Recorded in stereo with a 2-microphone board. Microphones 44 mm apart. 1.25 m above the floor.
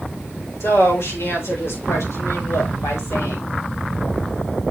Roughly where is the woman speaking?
Left.